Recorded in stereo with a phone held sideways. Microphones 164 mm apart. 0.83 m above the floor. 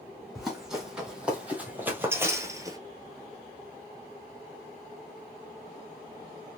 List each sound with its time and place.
0.3 s running footsteps: 5° right (ahead or behind), 2 m; by 2.8 s 20° right (ahead or behind), 0.9 m